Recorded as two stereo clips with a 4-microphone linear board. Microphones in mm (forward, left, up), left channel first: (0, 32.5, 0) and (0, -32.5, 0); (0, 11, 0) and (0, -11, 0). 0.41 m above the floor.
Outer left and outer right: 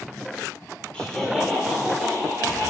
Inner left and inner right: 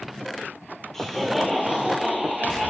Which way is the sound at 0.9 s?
15° left (ahead or behind).